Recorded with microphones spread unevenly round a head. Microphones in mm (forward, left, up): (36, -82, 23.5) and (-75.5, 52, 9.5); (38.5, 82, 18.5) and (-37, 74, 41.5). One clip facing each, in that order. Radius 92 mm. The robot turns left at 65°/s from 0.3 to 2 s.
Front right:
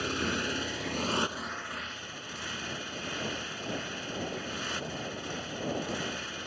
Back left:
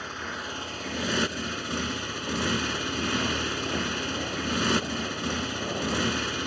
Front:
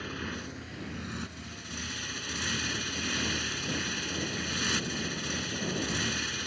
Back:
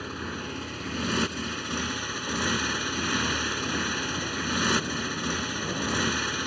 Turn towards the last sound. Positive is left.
turn(degrees=150)